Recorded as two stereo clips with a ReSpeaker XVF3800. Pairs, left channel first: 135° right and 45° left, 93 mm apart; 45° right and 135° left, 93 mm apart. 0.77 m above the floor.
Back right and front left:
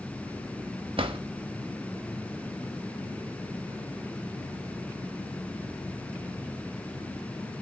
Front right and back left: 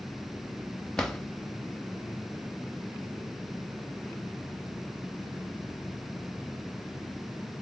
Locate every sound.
1.0 s a drawer: 40° left, 0.7 m